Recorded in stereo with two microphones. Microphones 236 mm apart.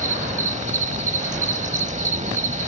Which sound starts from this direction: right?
An insect, at 0.0 s.